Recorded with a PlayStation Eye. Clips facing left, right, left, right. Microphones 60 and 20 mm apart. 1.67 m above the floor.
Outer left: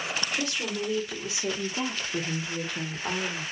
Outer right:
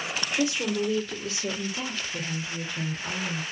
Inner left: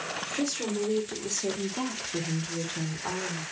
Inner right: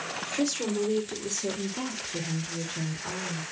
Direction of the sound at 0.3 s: 15° right (ahead or behind).